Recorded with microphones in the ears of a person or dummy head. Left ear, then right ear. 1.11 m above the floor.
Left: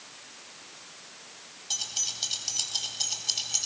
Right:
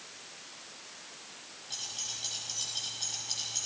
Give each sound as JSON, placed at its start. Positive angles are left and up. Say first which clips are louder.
{"t": 1.7, "sound": "keys jangling", "louder": "left 7 dB", "side_deg": 75, "distance_m": 4.5}